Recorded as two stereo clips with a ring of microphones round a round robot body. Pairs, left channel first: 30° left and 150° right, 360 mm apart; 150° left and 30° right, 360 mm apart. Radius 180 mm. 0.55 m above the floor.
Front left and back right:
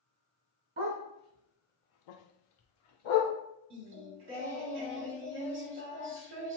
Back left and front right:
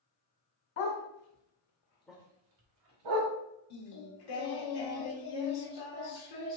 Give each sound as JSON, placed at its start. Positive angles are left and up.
{"t": 0.8, "sound": "a dog barking", "azimuth_deg": 145, "distance_m": 1.6}
{"t": 3.7, "sound": "singing", "azimuth_deg": 155, "distance_m": 1.0}